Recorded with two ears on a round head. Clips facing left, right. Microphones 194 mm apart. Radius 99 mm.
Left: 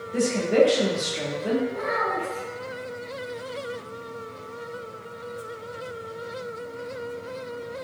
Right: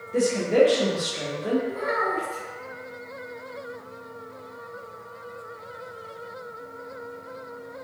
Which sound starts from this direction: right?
A child speaking, at 1.7 s.